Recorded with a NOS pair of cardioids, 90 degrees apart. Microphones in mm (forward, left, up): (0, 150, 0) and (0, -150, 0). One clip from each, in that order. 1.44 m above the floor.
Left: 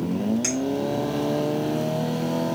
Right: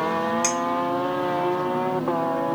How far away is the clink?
About 1.5 m.